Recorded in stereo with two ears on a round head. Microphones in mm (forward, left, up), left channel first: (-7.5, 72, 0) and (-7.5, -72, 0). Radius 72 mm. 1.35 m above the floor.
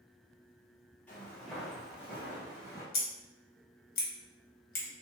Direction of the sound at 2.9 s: 65° left (ahead or behind).